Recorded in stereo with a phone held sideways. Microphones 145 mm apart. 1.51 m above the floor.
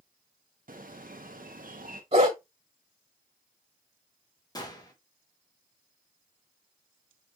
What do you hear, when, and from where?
0.7 s a bird: 65° right (ahead or behind), 0.8 m
2.1 s a dog barking: 40° right (ahead or behind), 1.8 m
4.5 s a gunshot: 25° left (ahead or behind), 1.2 m